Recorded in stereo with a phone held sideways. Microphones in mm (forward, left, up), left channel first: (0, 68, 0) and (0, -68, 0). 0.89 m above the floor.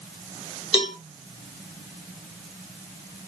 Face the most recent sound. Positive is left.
turn(degrees=45)  # may be behind; listen again after turning